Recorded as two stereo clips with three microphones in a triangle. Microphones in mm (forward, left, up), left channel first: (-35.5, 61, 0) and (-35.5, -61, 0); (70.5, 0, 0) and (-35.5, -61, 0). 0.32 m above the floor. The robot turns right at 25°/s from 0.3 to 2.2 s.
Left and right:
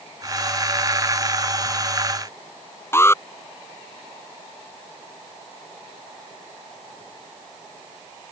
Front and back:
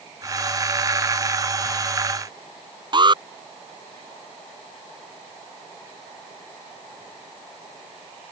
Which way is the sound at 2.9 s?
160° left.